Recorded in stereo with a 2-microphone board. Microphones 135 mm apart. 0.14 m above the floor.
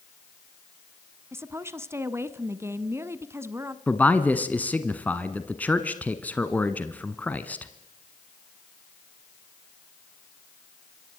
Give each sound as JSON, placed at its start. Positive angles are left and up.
{"t": 1.3, "sound": "a woman speaking", "side_deg": -20, "distance_m": 1.1}
{"t": 3.9, "sound": "a man speaking", "side_deg": 10, "distance_m": 1.2}